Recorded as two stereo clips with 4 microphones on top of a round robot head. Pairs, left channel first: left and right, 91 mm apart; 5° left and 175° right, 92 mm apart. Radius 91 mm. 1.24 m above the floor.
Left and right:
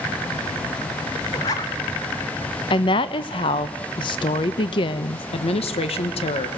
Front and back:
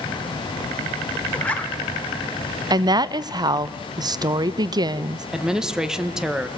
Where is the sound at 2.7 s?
135° left, 0.7 m.